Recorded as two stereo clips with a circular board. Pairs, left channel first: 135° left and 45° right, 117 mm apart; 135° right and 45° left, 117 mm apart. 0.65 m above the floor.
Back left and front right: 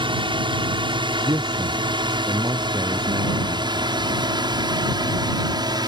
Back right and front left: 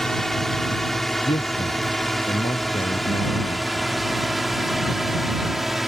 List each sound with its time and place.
0.0 s a drone: 50° right; by 5.9 s 40° right
1.2 s a man speaking: 105° right